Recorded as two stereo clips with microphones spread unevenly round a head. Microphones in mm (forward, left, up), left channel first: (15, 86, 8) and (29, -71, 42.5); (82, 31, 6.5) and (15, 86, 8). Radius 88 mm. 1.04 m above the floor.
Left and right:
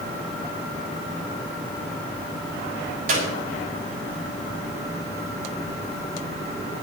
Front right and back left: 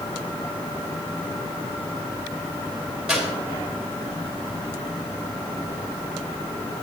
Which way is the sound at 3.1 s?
130° right.